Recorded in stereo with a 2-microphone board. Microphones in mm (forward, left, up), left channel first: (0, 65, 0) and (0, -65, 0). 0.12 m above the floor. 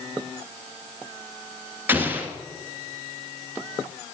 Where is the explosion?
15° right (ahead or behind), 1.6 m.